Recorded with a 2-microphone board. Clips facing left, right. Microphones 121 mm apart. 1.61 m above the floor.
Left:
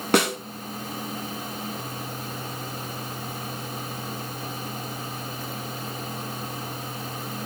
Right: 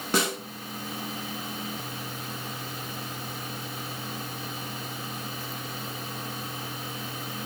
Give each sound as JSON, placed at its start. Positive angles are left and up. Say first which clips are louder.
{"t": 0.1, "sound": "a snare drum", "louder": "left 6 dB", "side_deg": 65, "distance_m": 0.6}